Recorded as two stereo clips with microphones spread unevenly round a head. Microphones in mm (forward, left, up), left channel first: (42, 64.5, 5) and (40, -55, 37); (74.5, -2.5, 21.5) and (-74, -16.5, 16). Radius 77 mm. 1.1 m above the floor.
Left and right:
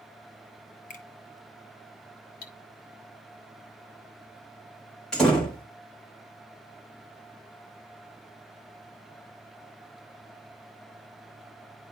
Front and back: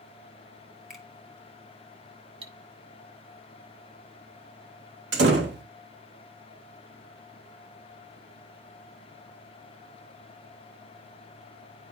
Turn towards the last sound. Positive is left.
turn(degrees=175)